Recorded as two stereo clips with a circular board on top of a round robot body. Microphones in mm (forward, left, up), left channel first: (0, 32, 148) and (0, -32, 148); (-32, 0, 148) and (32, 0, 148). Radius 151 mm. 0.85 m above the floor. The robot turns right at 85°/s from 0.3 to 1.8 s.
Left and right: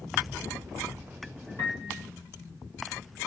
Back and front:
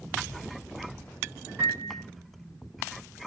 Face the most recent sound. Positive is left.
turn(degrees=75)